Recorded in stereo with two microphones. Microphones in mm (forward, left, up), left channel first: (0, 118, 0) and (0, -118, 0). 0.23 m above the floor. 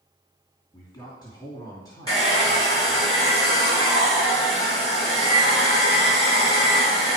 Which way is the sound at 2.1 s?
20° left (ahead or behind).